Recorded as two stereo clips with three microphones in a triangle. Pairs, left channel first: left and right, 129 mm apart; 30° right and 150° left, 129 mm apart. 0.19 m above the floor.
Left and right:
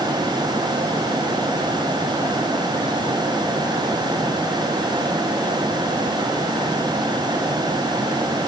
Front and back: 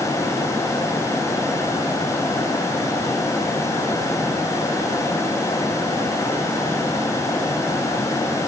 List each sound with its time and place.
Only background noise.